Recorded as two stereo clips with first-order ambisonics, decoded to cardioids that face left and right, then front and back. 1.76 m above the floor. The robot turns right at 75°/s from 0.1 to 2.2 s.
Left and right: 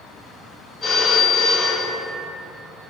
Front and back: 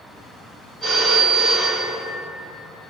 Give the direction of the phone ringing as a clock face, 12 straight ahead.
11 o'clock.